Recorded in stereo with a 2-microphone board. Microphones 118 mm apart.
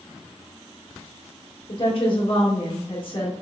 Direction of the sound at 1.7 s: 50° left (ahead or behind).